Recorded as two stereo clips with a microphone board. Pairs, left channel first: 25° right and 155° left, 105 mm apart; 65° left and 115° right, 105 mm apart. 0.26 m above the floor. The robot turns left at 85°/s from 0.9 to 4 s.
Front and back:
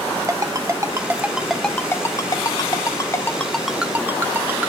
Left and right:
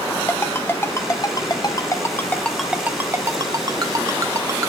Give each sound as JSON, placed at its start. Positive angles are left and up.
{"t": 0.3, "sound": "a ringtone", "azimuth_deg": 120, "distance_m": 0.8}